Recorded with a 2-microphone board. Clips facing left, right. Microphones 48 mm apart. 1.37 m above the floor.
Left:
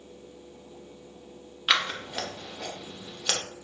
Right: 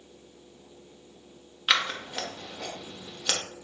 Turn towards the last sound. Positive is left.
turn(degrees=0)  # may be behind; listen again after turning